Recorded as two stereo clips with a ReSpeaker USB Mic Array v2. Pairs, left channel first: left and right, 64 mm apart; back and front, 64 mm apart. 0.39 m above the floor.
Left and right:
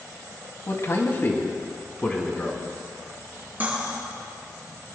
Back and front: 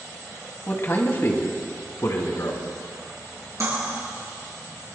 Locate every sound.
0.7 s a man speaking: 125° left, 2 m; by 2.6 s 160° left, 3 m
3.6 s cutlery clinking: 30° right, 4 m